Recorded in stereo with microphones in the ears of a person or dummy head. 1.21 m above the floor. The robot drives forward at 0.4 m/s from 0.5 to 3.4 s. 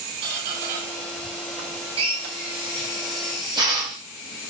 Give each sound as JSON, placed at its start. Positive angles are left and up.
{"t": 0.2, "sound": "a squeak", "side_deg": -45, "distance_m": 1.4}
{"t": 2.0, "sound": "a drill", "side_deg": -25, "distance_m": 0.7}